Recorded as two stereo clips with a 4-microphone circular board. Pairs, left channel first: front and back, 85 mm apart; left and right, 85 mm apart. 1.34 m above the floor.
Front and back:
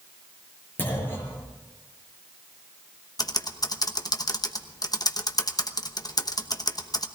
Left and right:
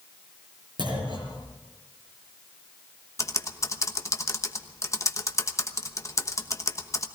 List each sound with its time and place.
0.8 s a clunk: 65° right, 6 m
3.2 s typing on a keyboard: 40° left, 1.0 m